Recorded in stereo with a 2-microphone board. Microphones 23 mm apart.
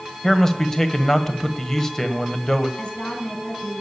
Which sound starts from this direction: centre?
A man speaking, at 0.2 s.